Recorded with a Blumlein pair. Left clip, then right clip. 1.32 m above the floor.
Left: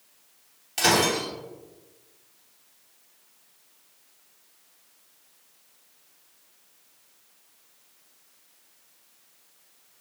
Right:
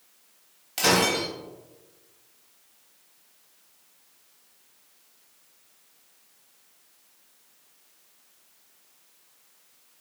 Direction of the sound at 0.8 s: 5° right.